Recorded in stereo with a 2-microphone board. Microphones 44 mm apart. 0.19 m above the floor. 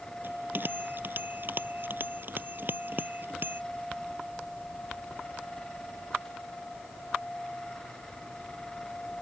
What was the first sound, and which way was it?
A bell, 55° right (ahead or behind).